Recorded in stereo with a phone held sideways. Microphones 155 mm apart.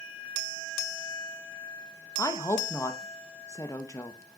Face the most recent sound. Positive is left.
turn(degrees=20)  # may be behind; listen again after turning